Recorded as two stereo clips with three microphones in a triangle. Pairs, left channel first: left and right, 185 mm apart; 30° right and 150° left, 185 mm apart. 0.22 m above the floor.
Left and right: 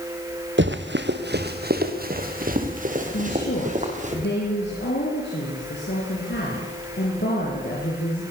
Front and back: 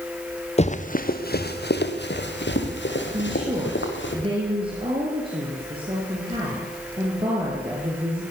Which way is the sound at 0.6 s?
85° right.